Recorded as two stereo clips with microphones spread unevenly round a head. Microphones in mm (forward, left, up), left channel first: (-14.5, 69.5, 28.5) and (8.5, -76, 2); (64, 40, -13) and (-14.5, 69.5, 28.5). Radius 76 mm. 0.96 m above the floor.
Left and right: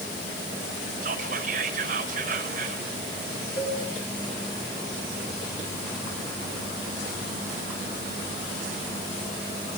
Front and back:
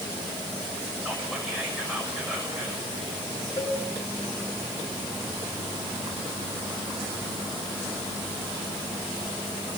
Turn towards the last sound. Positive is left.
turn(degrees=40)